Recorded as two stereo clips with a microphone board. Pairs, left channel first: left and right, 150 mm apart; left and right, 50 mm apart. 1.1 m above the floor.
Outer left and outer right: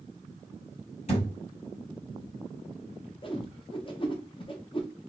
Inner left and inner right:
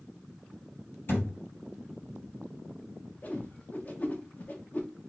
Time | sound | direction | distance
1.1 | a thud | 45° left (ahead or behind) | 2 m
3.2 | a whoosh | 35° left (ahead or behind) | 0.6 m